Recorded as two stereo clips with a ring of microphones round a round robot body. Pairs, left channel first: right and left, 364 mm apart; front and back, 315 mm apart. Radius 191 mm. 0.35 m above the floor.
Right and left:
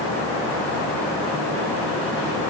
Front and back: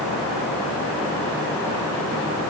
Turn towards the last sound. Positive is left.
No sound to turn to.